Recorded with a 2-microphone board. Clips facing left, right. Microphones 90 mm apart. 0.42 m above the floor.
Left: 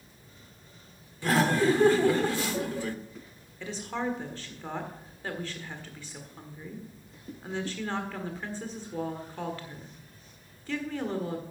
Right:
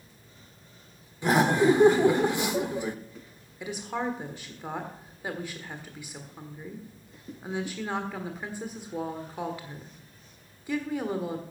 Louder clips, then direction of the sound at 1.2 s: Right 3 dB; 20° right (ahead or behind).